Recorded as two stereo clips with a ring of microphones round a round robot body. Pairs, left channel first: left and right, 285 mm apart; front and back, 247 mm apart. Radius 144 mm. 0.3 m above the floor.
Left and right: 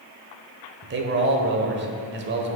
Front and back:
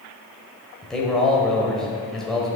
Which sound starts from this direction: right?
A man speaking, at 0.8 s.